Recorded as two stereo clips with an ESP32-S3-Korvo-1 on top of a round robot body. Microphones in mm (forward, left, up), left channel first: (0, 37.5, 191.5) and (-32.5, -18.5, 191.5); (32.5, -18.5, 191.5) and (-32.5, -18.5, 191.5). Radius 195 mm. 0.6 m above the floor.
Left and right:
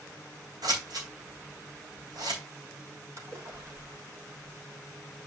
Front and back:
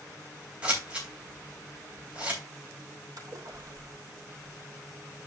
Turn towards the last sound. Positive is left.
turn(degrees=-160)